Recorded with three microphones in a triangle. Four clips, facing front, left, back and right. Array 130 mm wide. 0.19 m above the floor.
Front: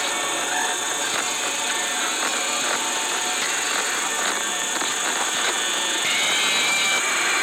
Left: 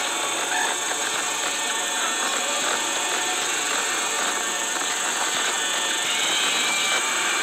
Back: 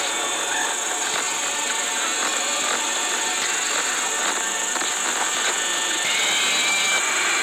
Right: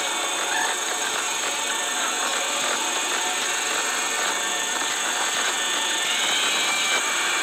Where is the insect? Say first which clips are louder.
Even, even; 20° right, 3 m.